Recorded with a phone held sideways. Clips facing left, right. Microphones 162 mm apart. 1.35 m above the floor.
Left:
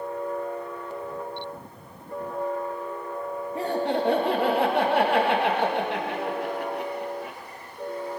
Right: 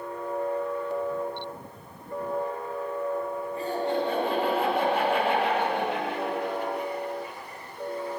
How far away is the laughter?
About 2 m.